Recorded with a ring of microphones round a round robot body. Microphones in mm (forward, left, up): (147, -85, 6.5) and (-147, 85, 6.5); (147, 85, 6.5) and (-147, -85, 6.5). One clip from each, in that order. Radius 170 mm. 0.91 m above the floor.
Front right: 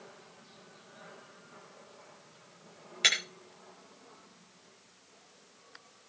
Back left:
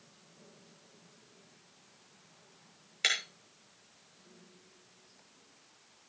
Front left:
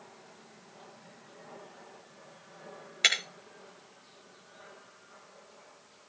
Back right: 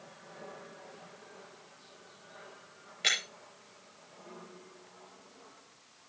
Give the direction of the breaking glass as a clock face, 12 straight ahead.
10 o'clock.